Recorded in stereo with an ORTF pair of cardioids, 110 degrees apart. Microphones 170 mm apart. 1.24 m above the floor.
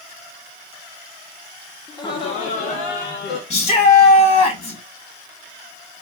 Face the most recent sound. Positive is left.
turn(degrees=45)